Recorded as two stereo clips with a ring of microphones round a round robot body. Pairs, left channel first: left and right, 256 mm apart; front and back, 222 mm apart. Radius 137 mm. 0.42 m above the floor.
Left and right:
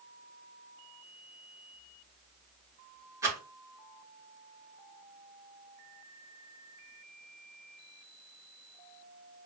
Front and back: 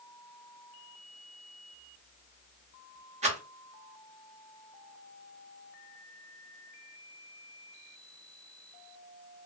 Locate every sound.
3.2 s a rattle: 160° right, 1.4 m